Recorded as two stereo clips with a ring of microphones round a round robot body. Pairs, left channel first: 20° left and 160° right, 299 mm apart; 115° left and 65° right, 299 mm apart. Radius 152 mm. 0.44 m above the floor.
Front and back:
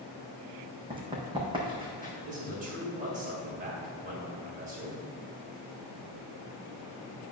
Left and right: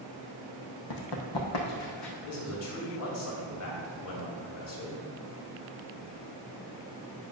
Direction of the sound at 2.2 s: 140° left.